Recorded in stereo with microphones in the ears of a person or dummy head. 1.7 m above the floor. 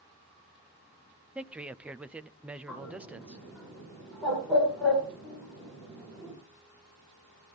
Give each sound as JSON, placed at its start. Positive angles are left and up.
{"t": 1.4, "sound": "a man speaking", "side_deg": -10, "distance_m": 0.5}
{"t": 2.7, "sound": "a bird", "side_deg": 0, "distance_m": 7.0}